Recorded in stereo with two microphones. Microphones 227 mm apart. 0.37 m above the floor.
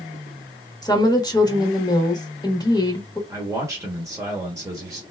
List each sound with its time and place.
0.8 s a woman speaking: 15° left (ahead or behind), 0.9 m
3.3 s a man speaking: 15° right (ahead or behind), 0.9 m